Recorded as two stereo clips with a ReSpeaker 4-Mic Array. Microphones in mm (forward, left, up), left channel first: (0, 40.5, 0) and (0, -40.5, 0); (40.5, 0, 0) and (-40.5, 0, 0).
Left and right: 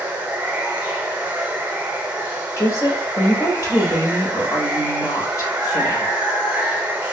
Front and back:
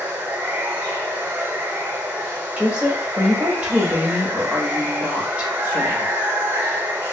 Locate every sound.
0.0 s running water: 140° right, 0.8 m
2.6 s a woman speaking: 115° left, 1.0 m